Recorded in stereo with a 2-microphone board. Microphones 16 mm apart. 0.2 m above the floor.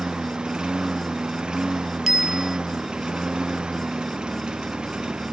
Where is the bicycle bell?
20° right (ahead or behind).